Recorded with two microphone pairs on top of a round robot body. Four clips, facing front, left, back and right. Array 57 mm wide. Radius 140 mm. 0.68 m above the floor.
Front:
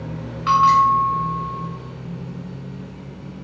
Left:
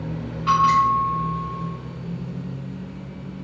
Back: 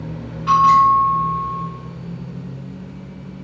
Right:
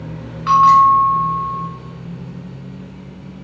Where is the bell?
45° right, 1.6 m.